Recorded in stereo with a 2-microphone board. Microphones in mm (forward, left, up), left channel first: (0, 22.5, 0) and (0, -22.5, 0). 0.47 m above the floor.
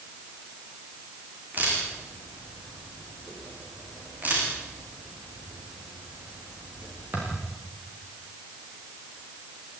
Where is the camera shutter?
35° right (ahead or behind), 9 m.